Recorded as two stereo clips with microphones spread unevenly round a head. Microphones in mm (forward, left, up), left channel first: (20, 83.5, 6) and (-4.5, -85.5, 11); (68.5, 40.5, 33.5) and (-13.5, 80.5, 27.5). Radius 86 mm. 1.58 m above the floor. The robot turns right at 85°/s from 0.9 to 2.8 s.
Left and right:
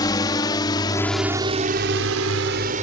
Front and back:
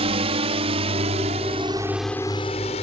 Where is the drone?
150° left; by 2.8 s 50° right.